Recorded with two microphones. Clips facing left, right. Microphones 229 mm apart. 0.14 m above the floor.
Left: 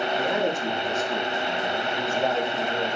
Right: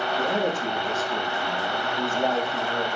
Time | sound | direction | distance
0.2 | a man speaking | centre (ahead or behind) | 5 m